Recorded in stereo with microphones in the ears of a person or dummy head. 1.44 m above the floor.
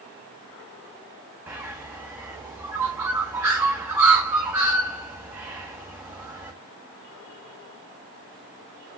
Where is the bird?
15° right (ahead or behind), 1.0 m.